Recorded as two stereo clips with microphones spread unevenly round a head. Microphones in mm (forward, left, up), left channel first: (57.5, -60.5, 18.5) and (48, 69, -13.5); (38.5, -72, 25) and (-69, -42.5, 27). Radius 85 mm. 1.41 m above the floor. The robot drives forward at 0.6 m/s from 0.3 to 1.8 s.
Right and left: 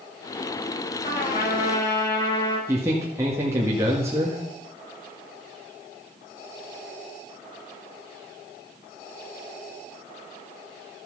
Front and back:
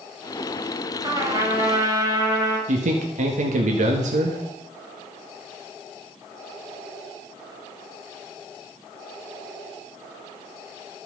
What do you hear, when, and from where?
1.0 s a trumpet: 135° right, 4 m; by 2.6 s 140° right, 4 m
2.7 s a man speaking: 170° left, 1.8 m